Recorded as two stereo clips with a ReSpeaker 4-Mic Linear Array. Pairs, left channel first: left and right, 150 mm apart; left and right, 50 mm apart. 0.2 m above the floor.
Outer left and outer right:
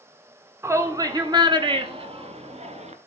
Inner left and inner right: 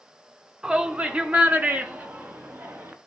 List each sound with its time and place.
0.6 s a shout: 20° right (ahead or behind), 1.8 m; by 2.9 s 50° right (ahead or behind), 2.5 m